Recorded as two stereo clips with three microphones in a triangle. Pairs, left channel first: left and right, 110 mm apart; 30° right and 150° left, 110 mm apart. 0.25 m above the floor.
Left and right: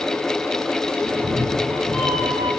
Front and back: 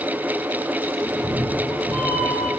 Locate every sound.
1.0 s a cat meowing: 105° right, 2.5 m